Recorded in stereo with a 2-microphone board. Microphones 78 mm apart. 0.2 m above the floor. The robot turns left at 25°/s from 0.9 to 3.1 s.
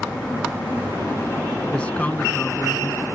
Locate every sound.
1.7 s a man speaking: 165° left; by 3.0 s 130° left